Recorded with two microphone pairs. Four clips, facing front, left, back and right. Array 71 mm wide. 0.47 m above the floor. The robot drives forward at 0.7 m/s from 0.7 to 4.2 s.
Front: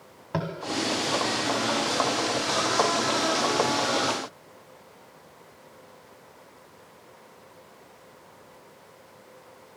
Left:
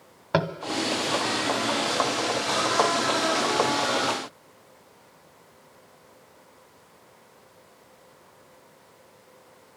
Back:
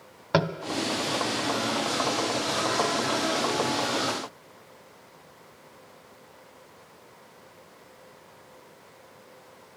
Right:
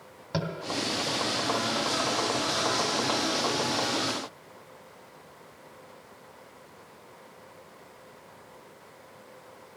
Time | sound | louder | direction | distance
0.3 | tapping | left 7 dB, back 6 dB | 140° left | 0.6 m